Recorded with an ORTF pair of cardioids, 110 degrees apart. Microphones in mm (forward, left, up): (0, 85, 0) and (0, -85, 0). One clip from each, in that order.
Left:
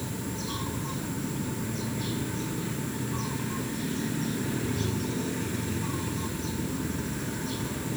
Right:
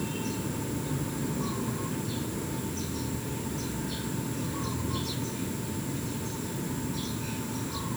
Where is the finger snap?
No finger snap in this recording.